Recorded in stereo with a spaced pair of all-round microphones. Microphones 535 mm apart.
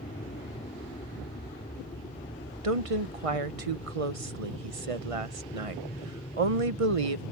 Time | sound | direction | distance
0.0 | an aircraft | 15° left (ahead or behind) | ?
2.6 | a woman speaking | 80° right | ?